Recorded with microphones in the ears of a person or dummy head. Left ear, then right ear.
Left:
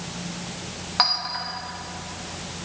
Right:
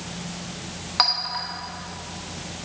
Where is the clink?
Centre (ahead or behind), 0.7 m.